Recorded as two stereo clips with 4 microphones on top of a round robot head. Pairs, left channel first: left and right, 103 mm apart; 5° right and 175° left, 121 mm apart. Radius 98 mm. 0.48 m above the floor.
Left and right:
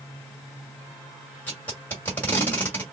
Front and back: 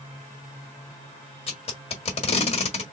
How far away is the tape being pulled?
About 1.4 m.